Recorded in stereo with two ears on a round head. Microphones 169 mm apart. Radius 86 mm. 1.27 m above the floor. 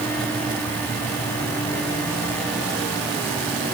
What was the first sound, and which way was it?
Only background noise.